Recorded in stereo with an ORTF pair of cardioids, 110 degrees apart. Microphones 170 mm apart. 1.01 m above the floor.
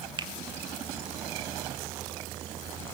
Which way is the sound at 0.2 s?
25° right.